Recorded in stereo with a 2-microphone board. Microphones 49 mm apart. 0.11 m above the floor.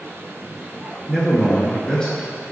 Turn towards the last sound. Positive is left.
turn(degrees=15)  # may be behind; listen again after turning